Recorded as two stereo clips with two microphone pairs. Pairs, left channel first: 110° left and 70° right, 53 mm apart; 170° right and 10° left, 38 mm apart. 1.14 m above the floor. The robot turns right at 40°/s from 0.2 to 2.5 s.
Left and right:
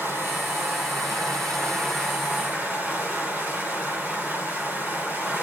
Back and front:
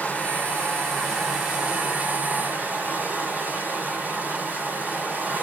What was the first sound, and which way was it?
Running water, 115° right.